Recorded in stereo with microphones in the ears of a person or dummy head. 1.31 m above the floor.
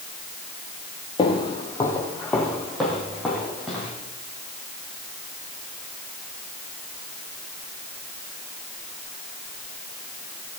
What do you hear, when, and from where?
1.2 s footsteps: 35° left (ahead or behind), 2.0 m; by 3.9 s centre (ahead or behind), 5 m